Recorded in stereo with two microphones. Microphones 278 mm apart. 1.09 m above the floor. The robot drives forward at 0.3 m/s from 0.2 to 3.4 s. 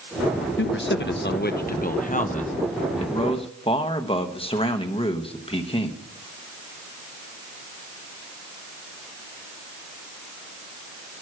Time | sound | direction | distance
0.6 | a man speaking | 45° left (ahead or behind) | 0.5 m